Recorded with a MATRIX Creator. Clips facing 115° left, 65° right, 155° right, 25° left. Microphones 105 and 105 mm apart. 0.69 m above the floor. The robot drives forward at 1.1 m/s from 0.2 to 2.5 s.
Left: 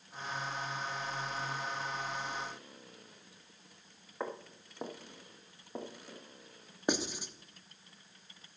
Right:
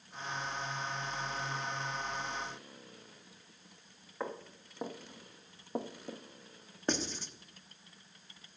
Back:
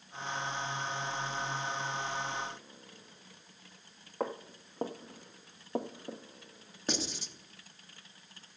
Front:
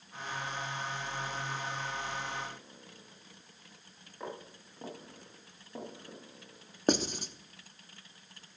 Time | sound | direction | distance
4.2 | footsteps | 170° right | 2.5 m
6.9 | writing | 40° left | 0.8 m